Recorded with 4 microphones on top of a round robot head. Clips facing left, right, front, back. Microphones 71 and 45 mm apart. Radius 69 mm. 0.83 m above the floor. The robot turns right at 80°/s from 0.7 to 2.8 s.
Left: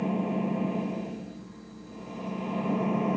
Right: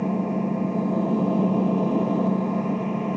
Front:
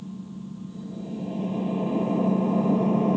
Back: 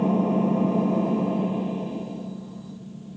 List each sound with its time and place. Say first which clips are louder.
0.0 s an engine running: right 4 dB, back 16 dB; 170° right; by 3.2 s straight ahead